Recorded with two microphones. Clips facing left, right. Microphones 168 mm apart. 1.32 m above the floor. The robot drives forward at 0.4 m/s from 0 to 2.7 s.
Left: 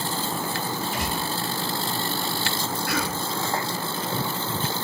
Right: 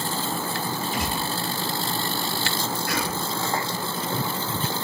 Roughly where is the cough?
Left.